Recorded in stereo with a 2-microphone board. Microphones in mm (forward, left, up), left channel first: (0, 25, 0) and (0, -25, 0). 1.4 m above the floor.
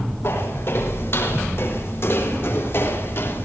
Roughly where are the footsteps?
Left.